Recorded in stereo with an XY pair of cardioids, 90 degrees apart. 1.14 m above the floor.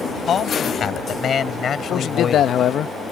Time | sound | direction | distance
0.3 | a man speaking | 55° left | ?
1.8 | a man speaking | 70° left | ?